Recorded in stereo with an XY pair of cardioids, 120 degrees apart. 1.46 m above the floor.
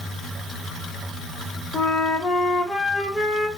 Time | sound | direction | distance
1.7 | a flute | 10° left | 1.3 m